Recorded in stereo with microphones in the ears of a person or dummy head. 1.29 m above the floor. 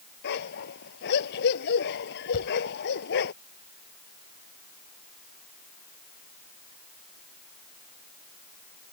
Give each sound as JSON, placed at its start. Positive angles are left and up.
{"t": 0.2, "sound": "a dog barking", "side_deg": 60}
{"t": 2.3, "sound": "a thud", "side_deg": 45}